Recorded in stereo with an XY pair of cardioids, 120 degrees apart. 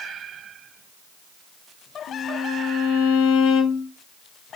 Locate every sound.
2.1 s a violin: 70° left, 4 m